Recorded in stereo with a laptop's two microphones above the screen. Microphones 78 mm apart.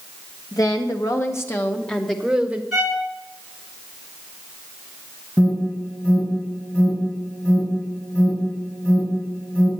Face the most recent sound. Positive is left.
turn(degrees=25)  # may be behind; listen again after turning